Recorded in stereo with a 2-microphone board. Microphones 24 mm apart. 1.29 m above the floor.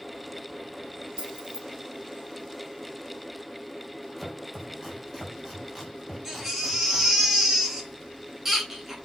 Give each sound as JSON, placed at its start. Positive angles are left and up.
{"t": 1.2, "sound": "keys jangling", "side_deg": -40, "distance_m": 1.4}
{"t": 4.2, "sound": "chopping", "side_deg": 0, "distance_m": 3.5}
{"t": 6.2, "sound": "a baby crying", "side_deg": -10, "distance_m": 4.0}